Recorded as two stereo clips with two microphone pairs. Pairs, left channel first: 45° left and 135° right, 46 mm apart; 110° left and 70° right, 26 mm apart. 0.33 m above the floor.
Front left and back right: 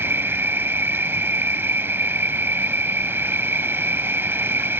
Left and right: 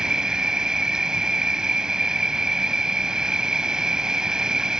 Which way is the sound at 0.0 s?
130° right.